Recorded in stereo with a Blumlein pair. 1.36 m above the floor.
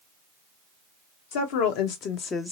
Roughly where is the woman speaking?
Ahead left.